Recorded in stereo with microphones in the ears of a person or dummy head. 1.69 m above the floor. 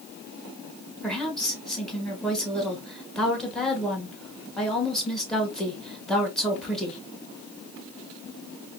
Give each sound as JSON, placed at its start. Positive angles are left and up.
{"t": 1.0, "sound": "a woman speaking", "side_deg": 5, "distance_m": 1.5}